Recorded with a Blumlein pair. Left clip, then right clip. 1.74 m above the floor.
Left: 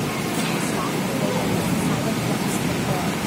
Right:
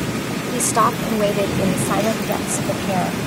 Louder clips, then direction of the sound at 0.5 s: Right 7 dB; 55° right.